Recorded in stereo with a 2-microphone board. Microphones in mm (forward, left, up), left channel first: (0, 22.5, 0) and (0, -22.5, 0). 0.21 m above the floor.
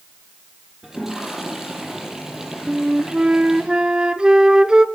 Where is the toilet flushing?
10° right (ahead or behind), 7.5 m.